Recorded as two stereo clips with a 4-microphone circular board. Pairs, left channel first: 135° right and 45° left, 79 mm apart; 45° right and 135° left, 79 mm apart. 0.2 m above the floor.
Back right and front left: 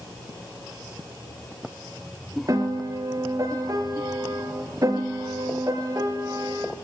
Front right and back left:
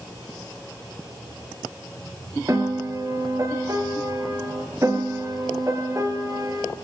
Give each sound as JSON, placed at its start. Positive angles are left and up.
{"t": 2.5, "sound": "a piano", "azimuth_deg": 85, "distance_m": 2.5}